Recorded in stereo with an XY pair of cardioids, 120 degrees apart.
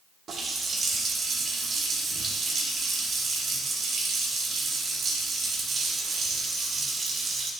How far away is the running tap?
About 1.3 m.